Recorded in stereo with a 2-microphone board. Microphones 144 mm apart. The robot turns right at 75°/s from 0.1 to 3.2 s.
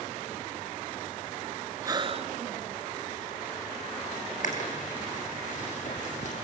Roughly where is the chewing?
Left.